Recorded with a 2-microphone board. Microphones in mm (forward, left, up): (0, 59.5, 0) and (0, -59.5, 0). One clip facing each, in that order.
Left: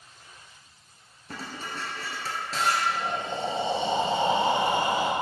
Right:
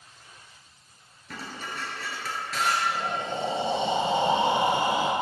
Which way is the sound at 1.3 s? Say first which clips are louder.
Left 1 dB; 35° left (ahead or behind).